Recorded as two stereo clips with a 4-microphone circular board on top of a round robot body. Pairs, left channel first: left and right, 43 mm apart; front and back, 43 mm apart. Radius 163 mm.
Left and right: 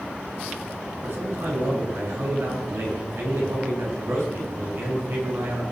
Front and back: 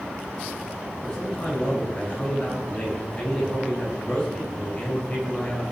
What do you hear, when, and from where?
1.0 s a man speaking: 65° right, 7.5 m